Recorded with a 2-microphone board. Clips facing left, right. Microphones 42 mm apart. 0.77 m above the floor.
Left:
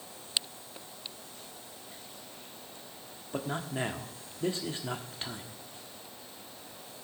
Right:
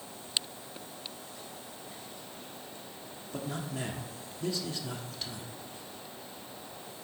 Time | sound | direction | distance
3.3 | a man speaking | 35° left (ahead or behind) | 1.2 m